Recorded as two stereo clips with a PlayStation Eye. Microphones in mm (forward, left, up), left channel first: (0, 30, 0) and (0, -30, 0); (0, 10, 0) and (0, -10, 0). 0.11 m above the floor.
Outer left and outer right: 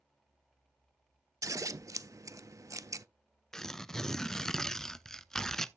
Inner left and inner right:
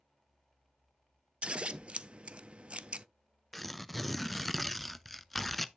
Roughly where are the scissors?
Right.